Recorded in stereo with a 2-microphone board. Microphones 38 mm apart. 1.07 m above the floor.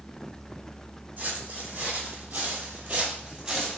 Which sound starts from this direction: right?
Footsteps, at 1.2 s.